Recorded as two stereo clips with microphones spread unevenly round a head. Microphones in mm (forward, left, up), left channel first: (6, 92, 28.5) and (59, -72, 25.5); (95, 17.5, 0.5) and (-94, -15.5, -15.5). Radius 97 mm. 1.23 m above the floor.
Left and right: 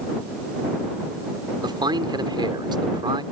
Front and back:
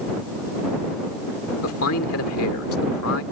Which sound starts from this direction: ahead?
A man speaking, at 1.6 s.